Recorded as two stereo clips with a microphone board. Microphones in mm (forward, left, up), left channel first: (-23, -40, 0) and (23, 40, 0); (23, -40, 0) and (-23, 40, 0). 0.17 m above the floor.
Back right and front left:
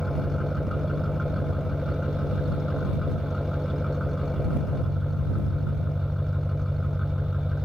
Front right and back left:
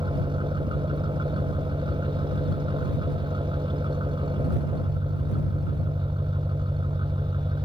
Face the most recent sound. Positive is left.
turn(degrees=150)